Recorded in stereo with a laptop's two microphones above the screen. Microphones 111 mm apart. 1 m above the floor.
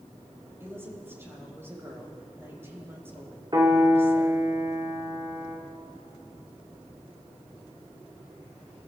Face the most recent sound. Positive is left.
turn(degrees=-35)  # may be behind; listen again after turning